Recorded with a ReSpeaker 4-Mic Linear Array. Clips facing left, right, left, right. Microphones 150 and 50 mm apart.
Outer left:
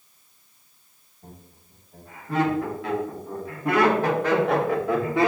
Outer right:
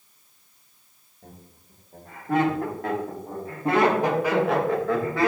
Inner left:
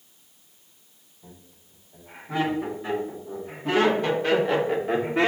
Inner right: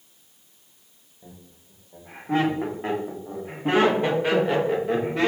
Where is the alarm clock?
No alarm clock in this recording.